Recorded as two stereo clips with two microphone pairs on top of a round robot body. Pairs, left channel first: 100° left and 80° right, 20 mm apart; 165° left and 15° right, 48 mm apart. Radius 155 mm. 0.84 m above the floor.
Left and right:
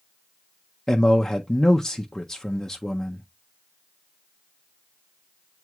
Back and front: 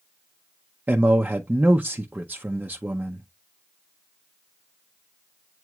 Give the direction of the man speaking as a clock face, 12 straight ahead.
11 o'clock.